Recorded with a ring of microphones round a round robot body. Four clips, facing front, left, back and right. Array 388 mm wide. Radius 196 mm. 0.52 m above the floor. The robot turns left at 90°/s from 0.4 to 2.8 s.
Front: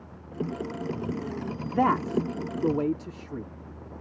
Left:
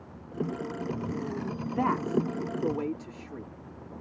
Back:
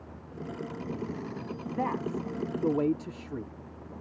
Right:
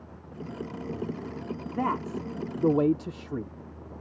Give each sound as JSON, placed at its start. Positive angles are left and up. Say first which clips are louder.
{"t": 1.6, "sound": "a man speaking", "louder": "left 1 dB, front 7 dB", "azimuth_deg": 15}